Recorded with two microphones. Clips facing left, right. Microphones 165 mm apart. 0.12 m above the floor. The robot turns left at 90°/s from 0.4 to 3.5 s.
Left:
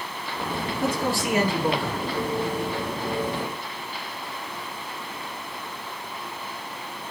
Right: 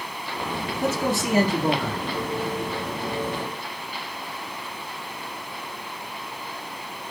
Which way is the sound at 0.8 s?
5° left.